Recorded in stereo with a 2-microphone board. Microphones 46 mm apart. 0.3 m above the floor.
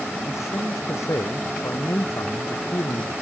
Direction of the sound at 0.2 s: 85° left.